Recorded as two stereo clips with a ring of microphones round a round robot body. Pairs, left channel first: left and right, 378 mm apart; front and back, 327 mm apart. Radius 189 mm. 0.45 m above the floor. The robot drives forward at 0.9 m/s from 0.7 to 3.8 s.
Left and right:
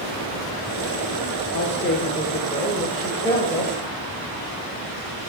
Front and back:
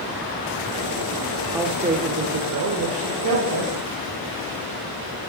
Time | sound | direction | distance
1.5 | a woman speaking | 105° left | 1.1 m